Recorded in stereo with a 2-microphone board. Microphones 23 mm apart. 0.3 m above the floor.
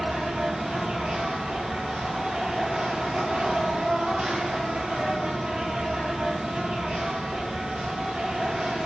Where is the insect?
80° right, 1.2 m.